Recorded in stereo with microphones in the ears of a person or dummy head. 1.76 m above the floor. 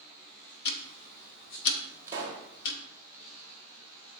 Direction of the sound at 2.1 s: 20° right (ahead or behind).